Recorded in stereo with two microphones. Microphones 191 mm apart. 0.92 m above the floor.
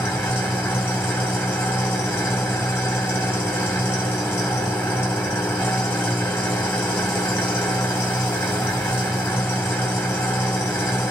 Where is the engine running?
10° left (ahead or behind), 2 m.